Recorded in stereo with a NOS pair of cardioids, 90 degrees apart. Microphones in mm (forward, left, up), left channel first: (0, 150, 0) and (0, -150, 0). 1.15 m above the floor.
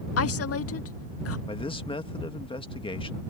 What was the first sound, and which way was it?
A woman speaking, 50° left.